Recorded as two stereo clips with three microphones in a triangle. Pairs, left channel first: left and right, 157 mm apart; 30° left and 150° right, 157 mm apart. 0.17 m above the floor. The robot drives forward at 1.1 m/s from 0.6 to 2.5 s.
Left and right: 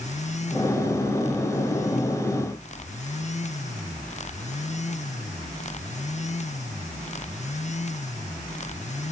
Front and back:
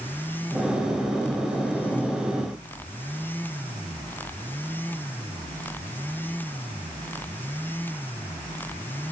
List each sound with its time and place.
Only background noise.